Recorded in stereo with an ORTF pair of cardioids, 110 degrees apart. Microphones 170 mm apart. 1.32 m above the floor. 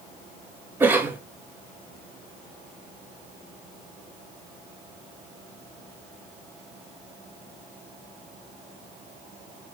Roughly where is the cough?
Ahead.